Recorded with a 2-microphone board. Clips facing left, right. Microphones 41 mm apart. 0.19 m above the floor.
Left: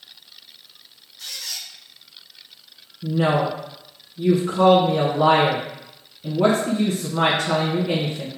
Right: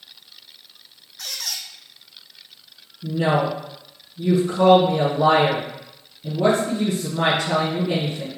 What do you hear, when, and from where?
1.2 s a squeak: 80° right, 0.7 m
3.0 s a woman speaking: 50° left (ahead or behind), 1.5 m